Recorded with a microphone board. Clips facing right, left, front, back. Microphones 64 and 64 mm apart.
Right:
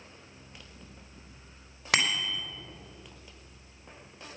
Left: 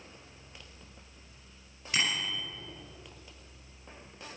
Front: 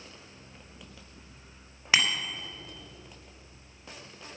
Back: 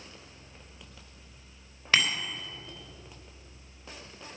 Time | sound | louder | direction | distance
1.9 | a bicycle bell | right 3 dB, even | 80° right | 3.5 m